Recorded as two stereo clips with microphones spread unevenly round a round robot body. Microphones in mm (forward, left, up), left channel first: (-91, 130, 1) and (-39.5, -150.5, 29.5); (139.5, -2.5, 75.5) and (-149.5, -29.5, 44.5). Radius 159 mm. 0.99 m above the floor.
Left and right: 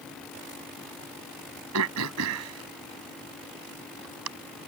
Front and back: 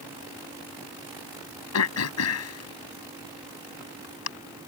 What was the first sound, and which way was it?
Throat clearing, 35° right.